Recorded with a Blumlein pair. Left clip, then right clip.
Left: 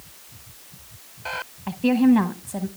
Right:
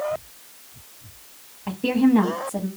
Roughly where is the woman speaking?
Ahead.